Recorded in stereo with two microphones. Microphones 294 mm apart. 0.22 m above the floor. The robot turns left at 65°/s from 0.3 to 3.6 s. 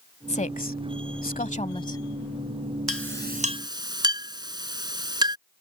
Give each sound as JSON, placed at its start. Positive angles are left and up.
{"t": 0.3, "sound": "a woman speaking", "azimuth_deg": 135}
{"t": 2.9, "sound": "a clink", "side_deg": -55}